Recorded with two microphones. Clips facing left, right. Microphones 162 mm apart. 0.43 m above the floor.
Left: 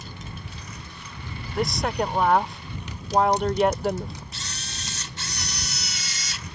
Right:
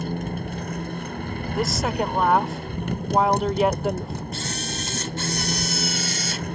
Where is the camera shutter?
50° right (ahead or behind).